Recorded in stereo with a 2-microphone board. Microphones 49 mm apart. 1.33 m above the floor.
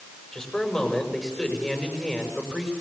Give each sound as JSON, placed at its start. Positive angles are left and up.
{"t": 0.3, "sound": "a man speaking", "side_deg": 15, "distance_m": 7.5}